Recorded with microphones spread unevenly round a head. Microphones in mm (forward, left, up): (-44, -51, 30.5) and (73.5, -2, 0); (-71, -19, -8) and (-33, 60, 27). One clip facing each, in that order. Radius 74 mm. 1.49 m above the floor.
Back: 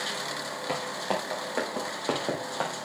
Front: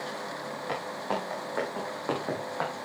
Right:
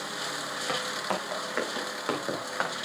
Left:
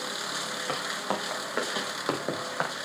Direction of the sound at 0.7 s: 135° left.